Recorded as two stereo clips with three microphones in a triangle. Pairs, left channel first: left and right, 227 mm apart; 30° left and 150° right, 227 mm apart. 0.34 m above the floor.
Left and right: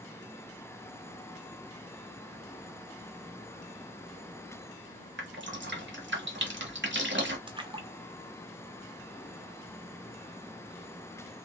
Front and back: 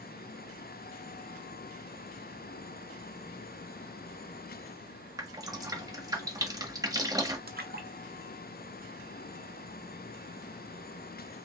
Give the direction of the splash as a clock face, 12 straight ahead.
5 o'clock.